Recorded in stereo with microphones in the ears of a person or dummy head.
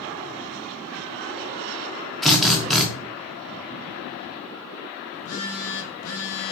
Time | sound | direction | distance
2.2 | a drill | 5° left (ahead or behind) | 0.7 m
5.1 | a phone buzzing | 75° left (ahead or behind) | 0.9 m